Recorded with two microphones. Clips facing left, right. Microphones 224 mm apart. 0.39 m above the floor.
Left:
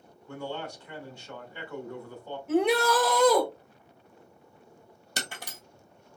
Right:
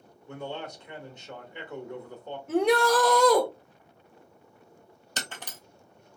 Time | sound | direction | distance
0.3 | a man speaking | 20° right (ahead or behind) | 1.0 m
2.5 | a shout | centre (ahead or behind) | 0.8 m
5.2 | breaking glass | 10° left (ahead or behind) | 1.1 m